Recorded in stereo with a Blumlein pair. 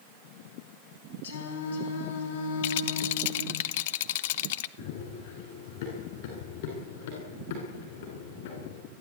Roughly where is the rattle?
Ahead left.